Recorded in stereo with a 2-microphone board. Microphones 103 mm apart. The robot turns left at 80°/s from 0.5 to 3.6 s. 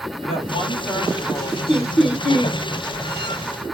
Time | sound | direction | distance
0.2 | a woman speaking | 95° left | 1.6 m
1.7 | laughter | 15° left | 1.6 m